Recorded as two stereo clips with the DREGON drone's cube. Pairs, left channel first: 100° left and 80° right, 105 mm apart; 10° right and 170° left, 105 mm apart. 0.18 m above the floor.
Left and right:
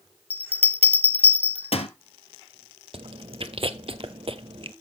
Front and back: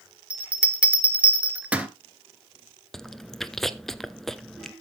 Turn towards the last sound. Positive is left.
turn(degrees=-100)